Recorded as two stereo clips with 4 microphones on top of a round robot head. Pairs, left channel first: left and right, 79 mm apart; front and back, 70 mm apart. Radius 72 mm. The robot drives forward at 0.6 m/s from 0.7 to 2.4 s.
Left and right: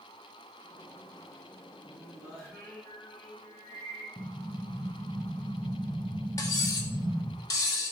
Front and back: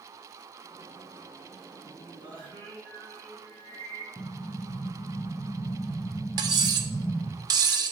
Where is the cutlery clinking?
155° left, 0.6 m.